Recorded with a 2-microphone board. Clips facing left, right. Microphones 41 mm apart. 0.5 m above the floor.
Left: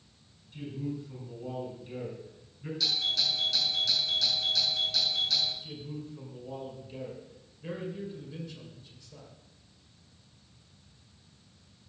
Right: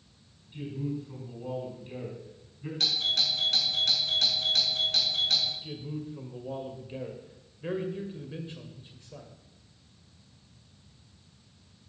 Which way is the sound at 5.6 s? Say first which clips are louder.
Right 3 dB; 35° right (ahead or behind).